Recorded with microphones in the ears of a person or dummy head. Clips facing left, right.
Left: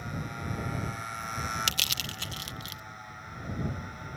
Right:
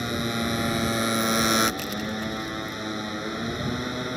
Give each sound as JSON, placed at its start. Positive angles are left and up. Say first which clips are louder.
{"t": 0.0, "sound": "a motorcycle", "louder": "right 11 dB", "side_deg": -80}
{"t": 1.7, "sound": "crushing", "louder": "right 13 dB", "side_deg": 45}